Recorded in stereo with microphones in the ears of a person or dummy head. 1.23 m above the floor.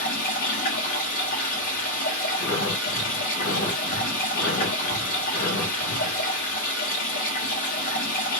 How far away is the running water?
About 1.6 m.